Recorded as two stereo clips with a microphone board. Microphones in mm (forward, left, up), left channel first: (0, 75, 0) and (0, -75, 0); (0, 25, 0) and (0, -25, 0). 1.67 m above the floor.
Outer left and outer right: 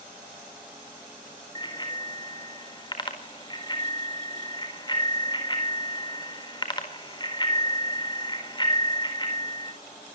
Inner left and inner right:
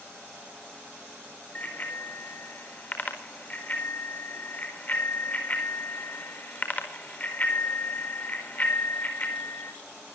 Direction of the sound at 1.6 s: 30° left (ahead or behind).